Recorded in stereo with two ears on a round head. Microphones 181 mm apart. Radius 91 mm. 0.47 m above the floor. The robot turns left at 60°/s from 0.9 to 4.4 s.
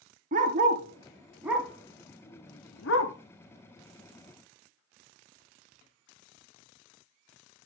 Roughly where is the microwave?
No microwave in this recording.